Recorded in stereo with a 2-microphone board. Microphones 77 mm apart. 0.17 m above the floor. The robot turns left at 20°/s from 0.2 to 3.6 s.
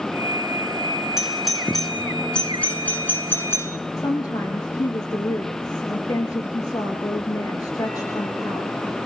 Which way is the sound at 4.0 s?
45° left (ahead or behind).